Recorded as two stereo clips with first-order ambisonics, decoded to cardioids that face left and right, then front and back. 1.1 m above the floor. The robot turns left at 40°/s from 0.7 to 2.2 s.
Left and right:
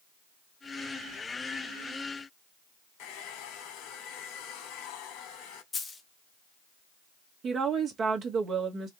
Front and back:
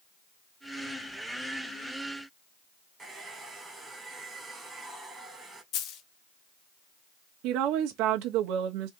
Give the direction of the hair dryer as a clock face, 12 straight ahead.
9 o'clock.